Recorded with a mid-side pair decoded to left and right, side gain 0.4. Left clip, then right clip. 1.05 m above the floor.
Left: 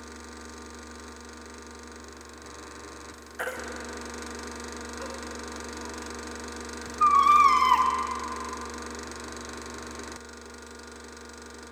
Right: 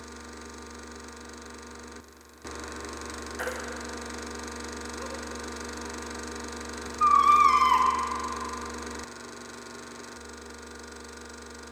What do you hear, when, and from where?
3.4 s a baby crying: 20° left, 0.8 m